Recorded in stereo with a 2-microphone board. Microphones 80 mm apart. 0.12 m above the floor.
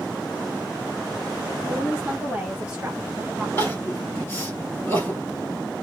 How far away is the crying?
About 2.5 m.